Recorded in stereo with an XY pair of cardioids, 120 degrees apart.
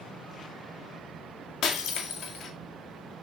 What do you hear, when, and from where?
1.6 s breaking glass: 60° left, 2 m